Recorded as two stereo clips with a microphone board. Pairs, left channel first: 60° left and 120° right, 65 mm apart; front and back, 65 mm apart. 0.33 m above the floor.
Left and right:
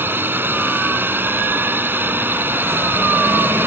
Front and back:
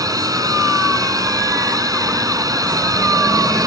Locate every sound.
0.0 s a drone: 175° right